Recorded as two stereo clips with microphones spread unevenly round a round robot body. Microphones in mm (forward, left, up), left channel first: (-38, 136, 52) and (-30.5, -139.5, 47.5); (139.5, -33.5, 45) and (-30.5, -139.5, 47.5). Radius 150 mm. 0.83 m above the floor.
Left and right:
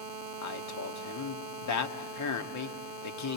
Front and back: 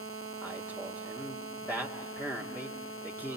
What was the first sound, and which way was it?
A man speaking, 115° left.